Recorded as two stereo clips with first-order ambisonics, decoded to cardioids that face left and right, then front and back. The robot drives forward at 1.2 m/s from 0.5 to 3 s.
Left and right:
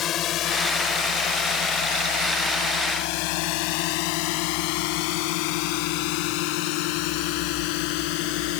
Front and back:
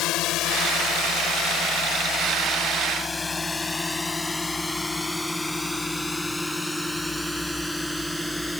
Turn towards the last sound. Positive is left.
turn(degrees=90)